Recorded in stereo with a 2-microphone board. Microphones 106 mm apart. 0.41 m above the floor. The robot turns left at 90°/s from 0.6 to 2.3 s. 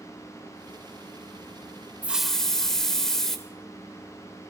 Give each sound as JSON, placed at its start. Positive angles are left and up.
{"t": 2.0, "sound": "a hiss", "side_deg": -15, "distance_m": 0.9}